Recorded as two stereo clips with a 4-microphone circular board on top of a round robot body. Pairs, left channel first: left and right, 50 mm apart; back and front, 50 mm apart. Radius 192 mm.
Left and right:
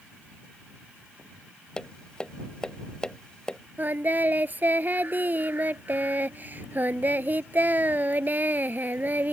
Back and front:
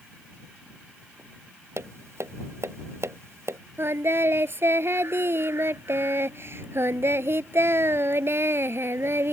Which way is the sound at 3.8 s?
40° right.